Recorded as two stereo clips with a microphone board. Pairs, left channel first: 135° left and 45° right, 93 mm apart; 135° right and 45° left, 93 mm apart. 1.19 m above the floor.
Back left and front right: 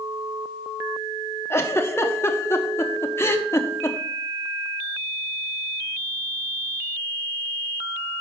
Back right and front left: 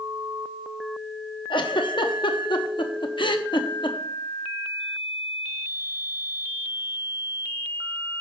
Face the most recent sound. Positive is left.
turn(degrees=-165)